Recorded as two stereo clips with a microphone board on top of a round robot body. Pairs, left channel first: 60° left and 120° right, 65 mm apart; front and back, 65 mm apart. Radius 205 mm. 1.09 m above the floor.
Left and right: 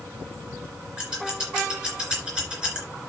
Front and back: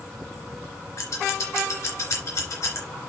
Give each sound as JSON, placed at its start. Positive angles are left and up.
{"t": 1.0, "sound": "scissors", "azimuth_deg": -40, "distance_m": 3.0}